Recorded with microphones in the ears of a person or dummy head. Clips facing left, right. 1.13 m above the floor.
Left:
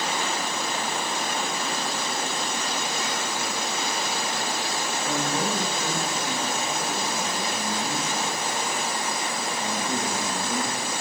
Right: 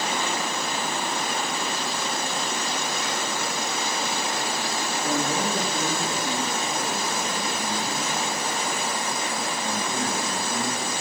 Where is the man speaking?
35° right (ahead or behind), 3 m; by 10.9 s 30° left (ahead or behind), 4 m.